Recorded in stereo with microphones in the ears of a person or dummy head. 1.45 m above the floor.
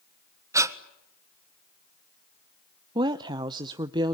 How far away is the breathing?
About 1.4 m.